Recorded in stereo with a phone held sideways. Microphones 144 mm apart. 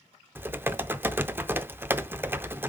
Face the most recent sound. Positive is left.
turn(degrees=-15)  # may be behind; listen again after turning